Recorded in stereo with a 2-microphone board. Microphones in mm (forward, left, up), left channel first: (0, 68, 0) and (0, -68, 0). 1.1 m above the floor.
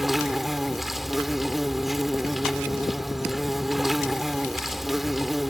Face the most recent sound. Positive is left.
turn(degrees=0)  # may be behind; listen again after turning